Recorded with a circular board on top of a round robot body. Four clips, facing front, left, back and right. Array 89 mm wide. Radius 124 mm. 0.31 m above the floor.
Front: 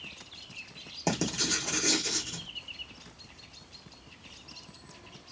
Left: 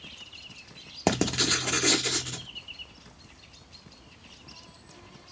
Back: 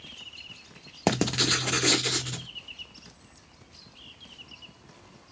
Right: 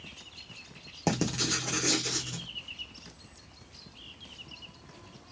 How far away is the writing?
About 0.7 m.